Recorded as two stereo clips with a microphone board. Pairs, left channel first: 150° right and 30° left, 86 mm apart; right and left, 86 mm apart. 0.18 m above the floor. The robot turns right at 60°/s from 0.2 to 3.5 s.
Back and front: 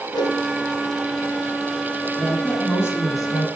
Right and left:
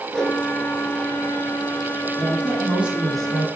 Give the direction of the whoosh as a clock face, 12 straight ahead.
6 o'clock.